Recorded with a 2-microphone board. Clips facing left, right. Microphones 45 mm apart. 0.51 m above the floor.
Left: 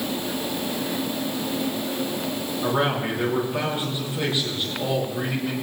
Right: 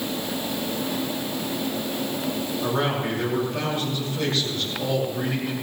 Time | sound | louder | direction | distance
2.6 | a man speaking | left 2 dB | 10° left (ahead or behind) | 5.5 m